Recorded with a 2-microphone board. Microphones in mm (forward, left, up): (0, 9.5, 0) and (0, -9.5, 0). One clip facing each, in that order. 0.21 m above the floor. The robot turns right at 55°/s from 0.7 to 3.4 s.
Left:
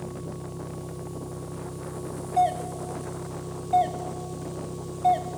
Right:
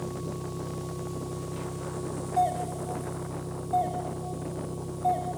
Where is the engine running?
105° right, 7 m; by 5.4 s 40° left, 7 m.